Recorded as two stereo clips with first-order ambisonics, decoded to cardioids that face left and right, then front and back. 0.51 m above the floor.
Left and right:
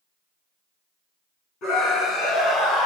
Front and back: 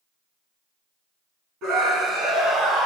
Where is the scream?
140° left, 5 m; by 2.9 s 130° left, 4.5 m.